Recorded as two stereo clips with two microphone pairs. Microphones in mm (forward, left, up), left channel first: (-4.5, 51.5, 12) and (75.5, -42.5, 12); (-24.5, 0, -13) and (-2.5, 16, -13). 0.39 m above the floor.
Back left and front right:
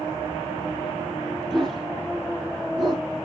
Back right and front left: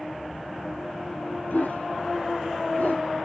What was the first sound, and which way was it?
A dog barking, 145° right.